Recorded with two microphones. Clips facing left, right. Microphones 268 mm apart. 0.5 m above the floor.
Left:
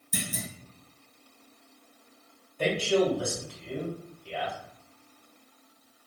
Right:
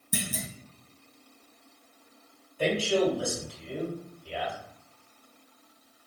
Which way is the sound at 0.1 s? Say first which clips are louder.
Right 1 dB; 60° right (ahead or behind).